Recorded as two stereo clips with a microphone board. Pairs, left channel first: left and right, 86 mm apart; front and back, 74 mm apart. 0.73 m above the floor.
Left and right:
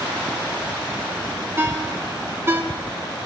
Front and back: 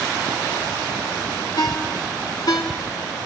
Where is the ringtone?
25° right, 1.5 m.